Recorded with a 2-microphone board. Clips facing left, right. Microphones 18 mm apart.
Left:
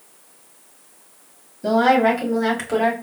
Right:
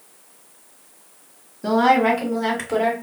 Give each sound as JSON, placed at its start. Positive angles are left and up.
{"t": 1.6, "sound": "a woman speaking", "side_deg": -10, "distance_m": 1.9}